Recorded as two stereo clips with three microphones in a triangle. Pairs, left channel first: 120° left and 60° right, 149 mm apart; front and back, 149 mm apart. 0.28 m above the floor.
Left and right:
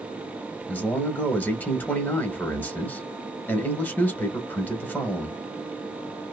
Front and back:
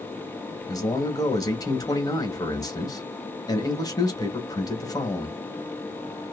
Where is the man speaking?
45° left, 1.1 m.